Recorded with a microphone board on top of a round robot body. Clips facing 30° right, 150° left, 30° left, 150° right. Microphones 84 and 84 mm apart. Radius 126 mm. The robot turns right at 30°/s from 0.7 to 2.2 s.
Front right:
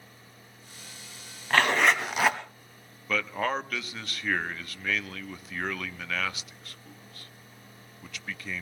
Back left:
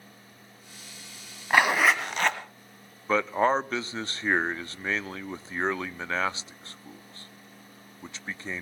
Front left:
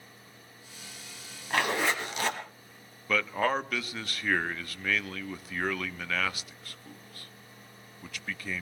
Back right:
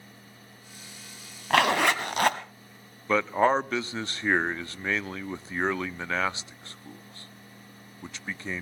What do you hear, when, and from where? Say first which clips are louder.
1.5 s a zipper: back left 1 dB, back right 6 dB; 135° right, 1.3 m; by 2.4 s 115° right, 1.3 m
3.1 s a man speaking: back left 6 dB, back right 5 dB; 175° left, 0.7 m